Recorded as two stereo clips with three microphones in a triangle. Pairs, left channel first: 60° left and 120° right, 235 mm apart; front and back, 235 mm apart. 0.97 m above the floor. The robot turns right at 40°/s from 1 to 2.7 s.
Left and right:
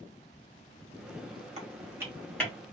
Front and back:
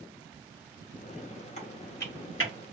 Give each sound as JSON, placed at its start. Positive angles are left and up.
{"t": 1.6, "sound": "typing on a keyboard", "azimuth_deg": -60, "distance_m": 1.3}